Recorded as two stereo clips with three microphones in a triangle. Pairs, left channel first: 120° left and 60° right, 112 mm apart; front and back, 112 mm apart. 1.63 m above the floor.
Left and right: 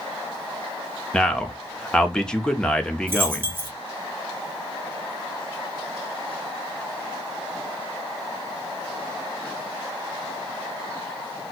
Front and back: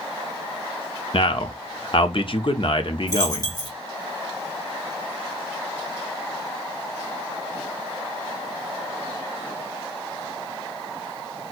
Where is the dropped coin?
5° right, 1.3 m.